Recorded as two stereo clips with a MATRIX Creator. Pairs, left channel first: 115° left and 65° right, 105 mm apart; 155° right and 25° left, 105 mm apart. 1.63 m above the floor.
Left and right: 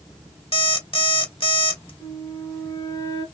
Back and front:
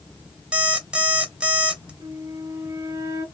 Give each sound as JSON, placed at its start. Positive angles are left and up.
{"t": 0.5, "sound": "an alarm clock", "azimuth_deg": 100, "distance_m": 1.9}
{"t": 2.0, "sound": "a flute", "azimuth_deg": 65, "distance_m": 2.0}